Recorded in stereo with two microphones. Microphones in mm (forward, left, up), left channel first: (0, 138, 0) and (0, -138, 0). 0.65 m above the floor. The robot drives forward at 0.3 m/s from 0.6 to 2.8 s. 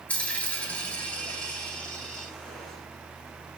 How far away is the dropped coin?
About 0.7 m.